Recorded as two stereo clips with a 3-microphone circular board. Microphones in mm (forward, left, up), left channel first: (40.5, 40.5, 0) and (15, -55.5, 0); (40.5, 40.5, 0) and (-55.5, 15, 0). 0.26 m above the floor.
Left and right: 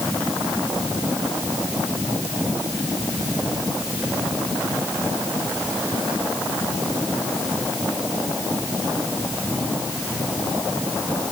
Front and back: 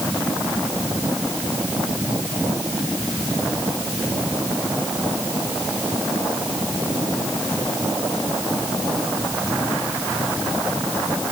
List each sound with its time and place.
Only background noise.